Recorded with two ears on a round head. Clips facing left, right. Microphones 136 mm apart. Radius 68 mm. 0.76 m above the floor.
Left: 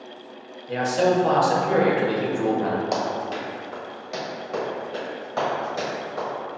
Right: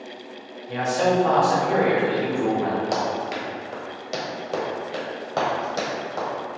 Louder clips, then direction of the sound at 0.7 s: Left 1 dB; 40° left (ahead or behind).